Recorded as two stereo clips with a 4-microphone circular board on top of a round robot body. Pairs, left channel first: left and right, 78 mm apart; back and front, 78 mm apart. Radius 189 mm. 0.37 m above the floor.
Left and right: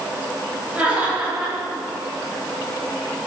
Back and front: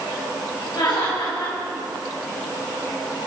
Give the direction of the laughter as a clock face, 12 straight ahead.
5 o'clock.